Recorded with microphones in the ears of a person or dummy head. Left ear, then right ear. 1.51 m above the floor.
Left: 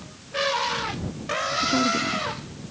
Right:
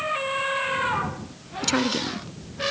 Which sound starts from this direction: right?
A woman speaking, at 1.6 s.